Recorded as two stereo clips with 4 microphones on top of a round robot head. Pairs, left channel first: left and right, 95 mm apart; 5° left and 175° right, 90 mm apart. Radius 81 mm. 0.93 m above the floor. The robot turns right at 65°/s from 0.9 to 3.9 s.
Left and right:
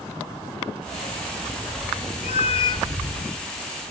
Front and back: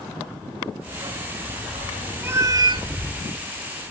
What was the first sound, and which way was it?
A dog barking, 125° left.